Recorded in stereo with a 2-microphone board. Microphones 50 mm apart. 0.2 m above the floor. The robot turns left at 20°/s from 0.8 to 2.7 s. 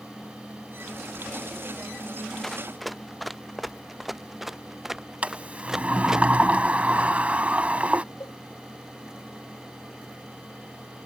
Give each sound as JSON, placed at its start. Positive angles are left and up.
{"t": 2.4, "sound": "running footsteps", "side_deg": 5}
{"t": 5.2, "sound": "a sliding door", "side_deg": -30}
{"t": 8.2, "sound": "a cowbell", "side_deg": 65}